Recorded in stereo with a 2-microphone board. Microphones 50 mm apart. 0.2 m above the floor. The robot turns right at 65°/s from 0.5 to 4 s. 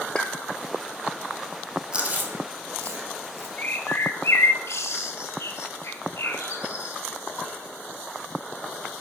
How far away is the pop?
About 1.6 m.